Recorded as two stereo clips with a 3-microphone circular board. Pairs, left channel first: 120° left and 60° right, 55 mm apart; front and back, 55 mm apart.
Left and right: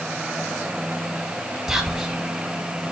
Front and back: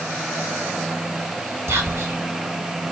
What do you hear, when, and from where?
1.7 s whispering: 140° right, 1.3 m